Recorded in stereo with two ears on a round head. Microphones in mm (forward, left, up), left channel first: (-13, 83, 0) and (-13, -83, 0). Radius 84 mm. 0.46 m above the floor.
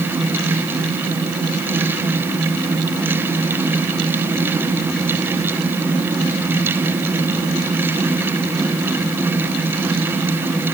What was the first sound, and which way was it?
Only background noise.